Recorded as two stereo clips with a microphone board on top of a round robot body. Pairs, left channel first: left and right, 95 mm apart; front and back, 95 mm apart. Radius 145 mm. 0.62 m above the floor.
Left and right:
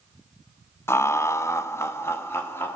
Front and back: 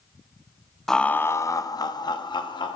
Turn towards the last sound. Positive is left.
turn(degrees=25)